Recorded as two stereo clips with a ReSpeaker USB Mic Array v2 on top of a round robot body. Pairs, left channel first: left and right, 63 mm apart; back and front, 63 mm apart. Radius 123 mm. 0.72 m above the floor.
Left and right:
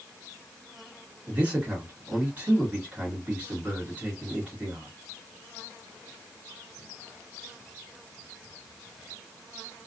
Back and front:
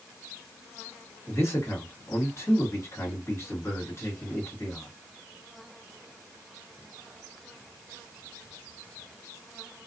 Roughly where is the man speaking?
Behind right.